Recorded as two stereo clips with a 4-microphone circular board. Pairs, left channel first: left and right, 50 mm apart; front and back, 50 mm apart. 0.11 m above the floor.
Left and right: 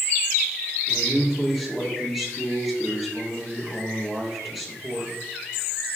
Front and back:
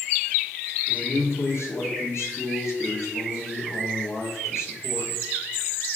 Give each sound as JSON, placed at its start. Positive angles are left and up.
{"t": 0.9, "sound": "a man speaking", "azimuth_deg": 0, "distance_m": 2.5}